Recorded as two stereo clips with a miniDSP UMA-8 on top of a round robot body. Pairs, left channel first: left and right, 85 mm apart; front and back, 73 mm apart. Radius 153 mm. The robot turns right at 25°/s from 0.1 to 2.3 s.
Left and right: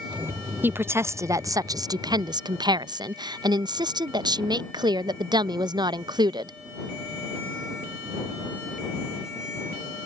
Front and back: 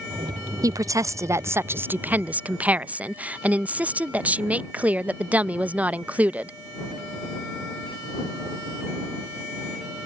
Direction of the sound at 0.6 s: 155° right.